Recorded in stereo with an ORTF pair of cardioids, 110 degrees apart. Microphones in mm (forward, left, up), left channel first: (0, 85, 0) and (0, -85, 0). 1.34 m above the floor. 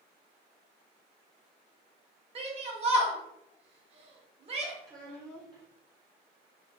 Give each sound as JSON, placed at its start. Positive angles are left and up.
{"t": 2.4, "sound": "a shout", "azimuth_deg": -35, "distance_m": 1.3}
{"t": 4.8, "sound": "a child speaking", "azimuth_deg": -20, "distance_m": 0.9}